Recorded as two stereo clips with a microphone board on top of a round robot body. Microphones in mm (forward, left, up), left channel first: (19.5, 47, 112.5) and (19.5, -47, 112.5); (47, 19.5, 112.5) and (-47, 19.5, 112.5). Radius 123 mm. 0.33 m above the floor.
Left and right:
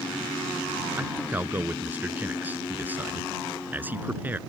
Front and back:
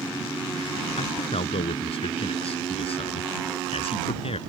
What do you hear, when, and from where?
1.0 s a man speaking: 20° right